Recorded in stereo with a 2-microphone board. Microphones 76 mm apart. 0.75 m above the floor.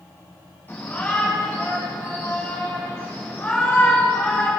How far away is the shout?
About 7.5 m.